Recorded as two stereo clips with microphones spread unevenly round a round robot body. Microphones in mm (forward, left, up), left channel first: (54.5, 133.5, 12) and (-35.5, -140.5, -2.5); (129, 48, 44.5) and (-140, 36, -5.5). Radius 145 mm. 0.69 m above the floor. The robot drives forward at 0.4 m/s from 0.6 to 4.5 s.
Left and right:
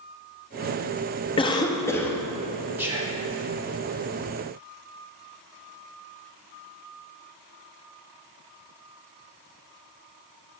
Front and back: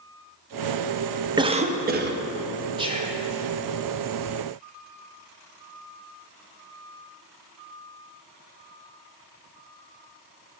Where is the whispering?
Straight behind, 0.8 m.